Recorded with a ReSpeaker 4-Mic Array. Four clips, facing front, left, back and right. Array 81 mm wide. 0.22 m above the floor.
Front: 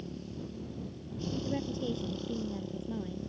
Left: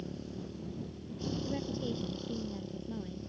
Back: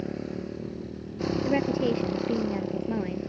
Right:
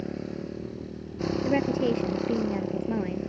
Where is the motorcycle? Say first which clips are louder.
Right 8 dB, back 9 dB; 140° right; by 3.3 s 125° right.